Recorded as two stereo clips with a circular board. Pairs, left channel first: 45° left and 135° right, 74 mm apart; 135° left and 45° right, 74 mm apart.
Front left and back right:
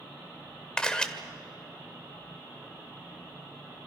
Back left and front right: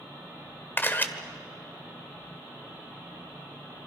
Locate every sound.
0.8 s a camera shutter: 115° left, 1.3 m